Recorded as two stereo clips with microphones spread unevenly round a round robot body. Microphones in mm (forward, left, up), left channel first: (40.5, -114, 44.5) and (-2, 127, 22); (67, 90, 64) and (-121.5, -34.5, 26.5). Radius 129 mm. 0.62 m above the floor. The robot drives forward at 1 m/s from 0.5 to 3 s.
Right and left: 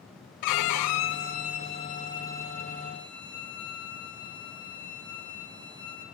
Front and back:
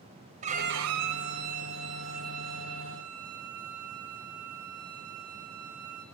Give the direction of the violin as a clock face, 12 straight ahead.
3 o'clock.